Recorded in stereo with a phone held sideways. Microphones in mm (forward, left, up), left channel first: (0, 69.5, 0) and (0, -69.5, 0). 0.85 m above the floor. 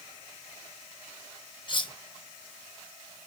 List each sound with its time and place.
1.7 s cutlery clinking: 40° left (ahead or behind), 0.5 m